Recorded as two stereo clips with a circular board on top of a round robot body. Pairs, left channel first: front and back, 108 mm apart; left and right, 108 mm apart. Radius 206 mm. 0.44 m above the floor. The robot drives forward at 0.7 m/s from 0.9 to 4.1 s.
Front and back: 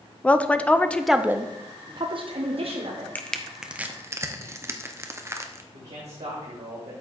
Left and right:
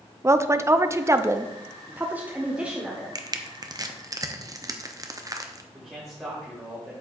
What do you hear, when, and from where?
0.2 s a woman speaking: 65° right, 0.8 m; by 3.0 s 170° right, 1.6 m
3.1 s crushing: 65° right, 1.1 m; by 5.6 s 130° right, 1.1 m
5.7 s a man speaking: 175° right, 2.5 m